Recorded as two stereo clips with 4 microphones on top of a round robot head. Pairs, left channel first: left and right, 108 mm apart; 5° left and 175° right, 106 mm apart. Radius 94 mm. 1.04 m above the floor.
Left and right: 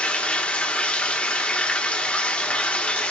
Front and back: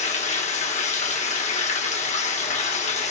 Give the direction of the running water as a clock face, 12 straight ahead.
12 o'clock.